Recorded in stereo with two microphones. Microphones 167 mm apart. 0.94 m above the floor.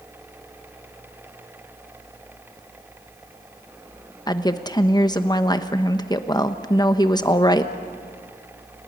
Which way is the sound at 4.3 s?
25° left (ahead or behind).